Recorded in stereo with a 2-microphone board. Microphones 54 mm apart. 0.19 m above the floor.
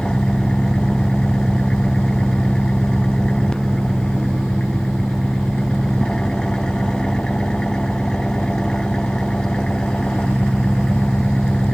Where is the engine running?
10° left (ahead or behind).